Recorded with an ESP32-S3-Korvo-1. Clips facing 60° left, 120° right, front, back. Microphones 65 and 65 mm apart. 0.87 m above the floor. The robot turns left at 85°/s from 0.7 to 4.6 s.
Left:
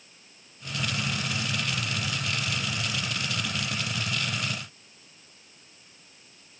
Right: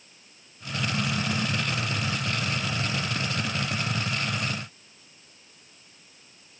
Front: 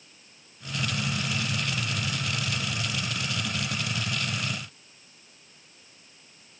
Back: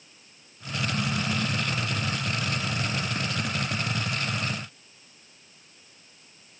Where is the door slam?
No door slam in this recording.